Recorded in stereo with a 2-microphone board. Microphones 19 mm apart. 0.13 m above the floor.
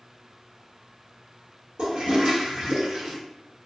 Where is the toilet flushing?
40° right (ahead or behind), 1.4 m.